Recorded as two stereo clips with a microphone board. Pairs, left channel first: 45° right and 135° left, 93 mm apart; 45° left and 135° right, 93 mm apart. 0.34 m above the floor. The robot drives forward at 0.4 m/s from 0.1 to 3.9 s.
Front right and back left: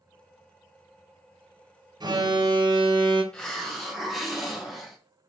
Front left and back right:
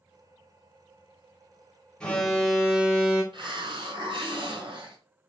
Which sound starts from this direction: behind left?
An alarm, at 2.0 s.